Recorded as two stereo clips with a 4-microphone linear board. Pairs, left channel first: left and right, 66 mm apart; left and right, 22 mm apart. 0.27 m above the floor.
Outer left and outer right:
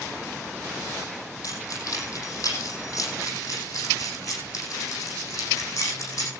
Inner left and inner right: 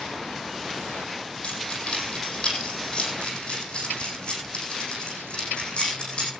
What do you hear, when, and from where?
1.4 s keys jangling: 50° left (ahead or behind), 7 m; by 6.3 s 45° left (ahead or behind), 11 m